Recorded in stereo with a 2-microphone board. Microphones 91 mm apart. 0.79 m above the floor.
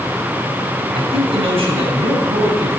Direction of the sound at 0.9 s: 80° right.